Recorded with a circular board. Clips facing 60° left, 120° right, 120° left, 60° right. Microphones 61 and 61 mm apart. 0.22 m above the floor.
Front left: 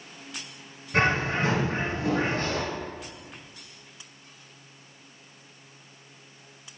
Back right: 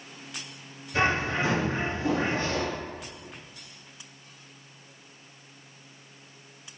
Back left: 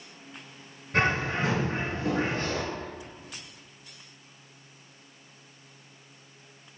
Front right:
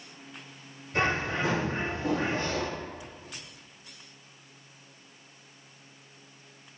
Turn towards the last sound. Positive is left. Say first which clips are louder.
# front left 1 dB, back left 2 dB
turn(degrees=95)